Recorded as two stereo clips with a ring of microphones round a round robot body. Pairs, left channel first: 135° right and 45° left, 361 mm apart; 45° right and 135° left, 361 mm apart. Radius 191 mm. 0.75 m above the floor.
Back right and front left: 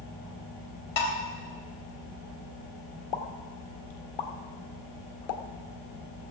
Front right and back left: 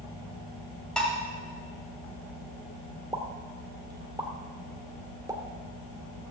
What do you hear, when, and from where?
1.0 s dishes clattering: 135° right, 2.5 m
3.1 s a pop: 145° right, 1.4 m